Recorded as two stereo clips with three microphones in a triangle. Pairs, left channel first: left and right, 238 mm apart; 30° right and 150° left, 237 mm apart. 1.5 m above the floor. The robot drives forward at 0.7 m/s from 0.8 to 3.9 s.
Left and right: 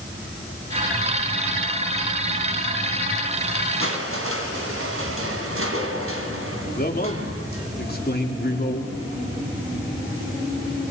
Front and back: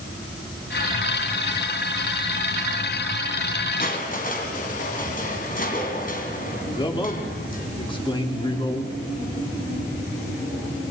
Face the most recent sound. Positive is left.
turn(degrees=40)